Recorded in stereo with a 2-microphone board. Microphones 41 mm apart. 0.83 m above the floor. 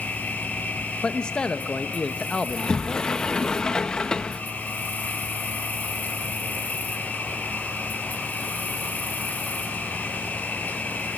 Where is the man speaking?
25° left (ahead or behind), 0.9 m.